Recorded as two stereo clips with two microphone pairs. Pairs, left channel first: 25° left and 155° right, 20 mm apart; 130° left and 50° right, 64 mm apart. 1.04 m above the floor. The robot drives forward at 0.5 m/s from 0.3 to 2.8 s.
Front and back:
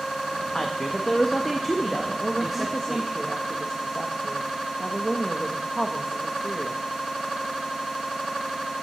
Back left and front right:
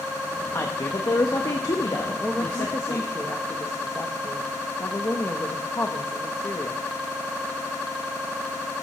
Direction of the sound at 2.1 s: 60° left.